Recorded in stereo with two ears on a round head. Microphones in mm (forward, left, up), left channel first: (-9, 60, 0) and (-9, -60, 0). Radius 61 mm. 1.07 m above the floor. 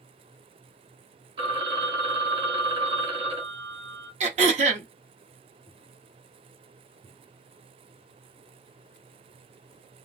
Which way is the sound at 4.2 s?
55° right (ahead or behind).